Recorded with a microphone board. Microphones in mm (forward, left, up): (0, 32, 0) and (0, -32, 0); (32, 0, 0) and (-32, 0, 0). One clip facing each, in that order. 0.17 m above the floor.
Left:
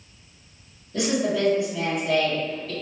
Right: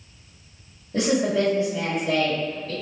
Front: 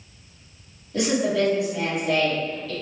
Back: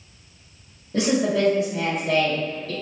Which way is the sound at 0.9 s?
135° right.